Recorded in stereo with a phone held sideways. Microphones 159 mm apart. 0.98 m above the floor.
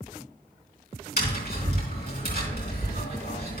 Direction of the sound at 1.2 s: 80° left.